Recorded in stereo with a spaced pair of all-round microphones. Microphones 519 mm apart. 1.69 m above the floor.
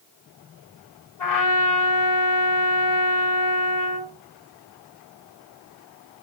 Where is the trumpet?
50° left (ahead or behind), 3 m.